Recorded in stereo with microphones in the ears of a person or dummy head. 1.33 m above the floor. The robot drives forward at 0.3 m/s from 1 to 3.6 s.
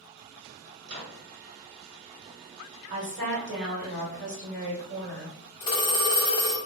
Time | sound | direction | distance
0.8 | a microwave | 60° right (ahead or behind) | 1.2 m
2.9 | a woman speaking | 70° right (ahead or behind) | 1.2 m
5.6 | a phone ringing | 20° left (ahead or behind) | 0.8 m